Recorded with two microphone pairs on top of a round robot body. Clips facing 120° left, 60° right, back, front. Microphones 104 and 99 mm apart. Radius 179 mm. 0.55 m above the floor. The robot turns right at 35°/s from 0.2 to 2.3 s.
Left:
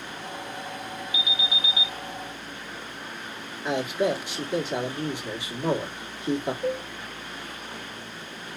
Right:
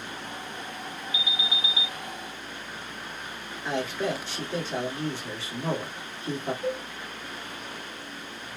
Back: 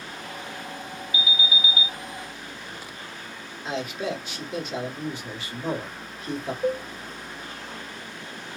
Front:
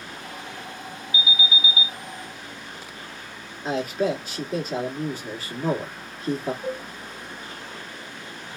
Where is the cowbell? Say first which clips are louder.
Left 1 dB, back 5 dB; 155° right, 0.7 m.